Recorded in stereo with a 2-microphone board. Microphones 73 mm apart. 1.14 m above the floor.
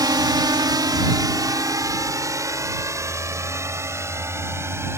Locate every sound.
0.0 s a drone: 70° right (ahead or behind); by 5.0 s 40° right (ahead or behind)